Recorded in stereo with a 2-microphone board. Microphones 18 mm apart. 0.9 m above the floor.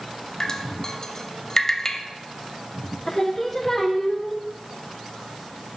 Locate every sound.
0.4 s dripping: 30° left (ahead or behind), 0.6 m
3.1 s singing: 15° left (ahead or behind), 0.6 m